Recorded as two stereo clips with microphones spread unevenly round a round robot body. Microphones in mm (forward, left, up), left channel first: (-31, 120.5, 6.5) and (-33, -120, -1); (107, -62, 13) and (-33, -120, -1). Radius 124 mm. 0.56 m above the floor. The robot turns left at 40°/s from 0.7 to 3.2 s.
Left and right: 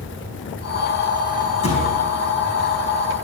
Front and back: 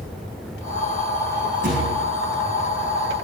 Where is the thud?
155° left, 5.5 m; by 2.0 s 140° left, 5.5 m.